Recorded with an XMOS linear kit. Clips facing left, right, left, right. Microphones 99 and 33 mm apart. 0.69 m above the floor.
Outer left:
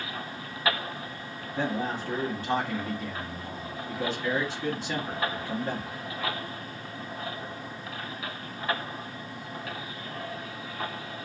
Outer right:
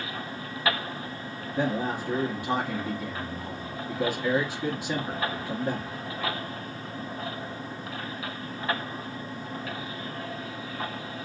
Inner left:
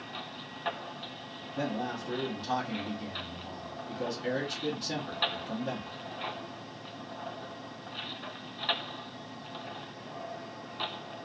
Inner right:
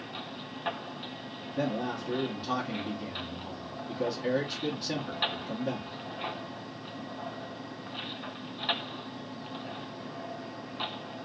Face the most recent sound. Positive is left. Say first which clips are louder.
# outer right 2 dB, inner right 2 dB
turn(degrees=-10)  # may be behind; listen again after turning